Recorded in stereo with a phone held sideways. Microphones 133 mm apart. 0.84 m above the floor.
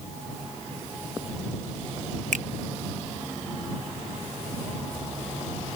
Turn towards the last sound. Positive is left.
turn(degrees=-75)  # may be behind; listen again after turning